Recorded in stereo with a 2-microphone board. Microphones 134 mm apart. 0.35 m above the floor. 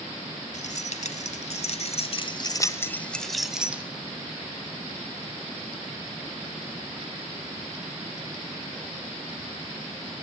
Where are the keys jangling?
65° left (ahead or behind), 2 m; by 3.8 s 10° right (ahead or behind), 1.7 m.